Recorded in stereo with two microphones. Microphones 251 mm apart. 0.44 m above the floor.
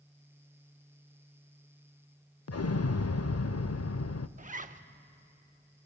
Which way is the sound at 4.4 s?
30° right (ahead or behind).